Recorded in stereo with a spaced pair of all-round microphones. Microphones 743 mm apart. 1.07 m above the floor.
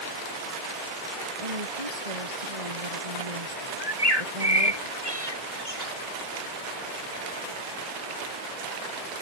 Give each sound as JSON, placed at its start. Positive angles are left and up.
{"t": 1.4, "sound": "a woman speaking", "side_deg": -50}
{"t": 3.8, "sound": "a bird", "side_deg": 30}